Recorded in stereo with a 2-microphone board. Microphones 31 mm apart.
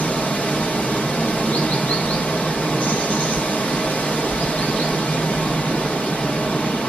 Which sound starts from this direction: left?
Running water, at 0.0 s.